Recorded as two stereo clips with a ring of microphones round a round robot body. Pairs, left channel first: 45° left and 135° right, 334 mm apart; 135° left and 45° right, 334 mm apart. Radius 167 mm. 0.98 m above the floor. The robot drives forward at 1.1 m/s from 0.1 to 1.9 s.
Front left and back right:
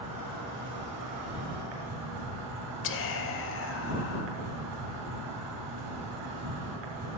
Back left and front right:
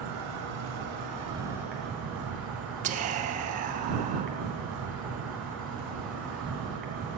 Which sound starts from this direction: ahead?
Whispering, at 2.8 s.